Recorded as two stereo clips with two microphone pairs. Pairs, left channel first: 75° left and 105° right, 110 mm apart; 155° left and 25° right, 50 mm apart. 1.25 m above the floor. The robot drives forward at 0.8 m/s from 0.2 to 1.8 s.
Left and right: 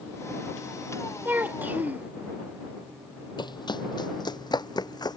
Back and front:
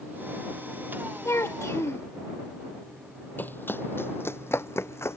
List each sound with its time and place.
1.2 s a child speaking: 175° right
3.4 s running footsteps: 110° left; by 5.2 s 125° left